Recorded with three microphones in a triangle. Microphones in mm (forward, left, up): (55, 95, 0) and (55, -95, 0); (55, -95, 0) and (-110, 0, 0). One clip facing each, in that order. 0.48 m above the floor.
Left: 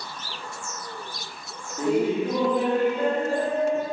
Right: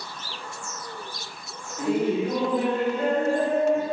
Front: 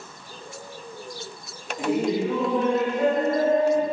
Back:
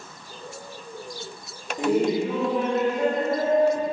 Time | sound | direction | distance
1.8 | laughter | 115° left | 1.1 m